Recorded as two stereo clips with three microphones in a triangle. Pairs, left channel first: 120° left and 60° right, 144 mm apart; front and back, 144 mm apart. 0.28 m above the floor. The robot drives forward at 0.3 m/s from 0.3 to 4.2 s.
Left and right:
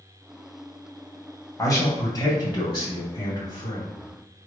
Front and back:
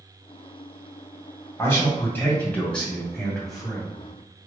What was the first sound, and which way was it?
A man speaking, 65° left.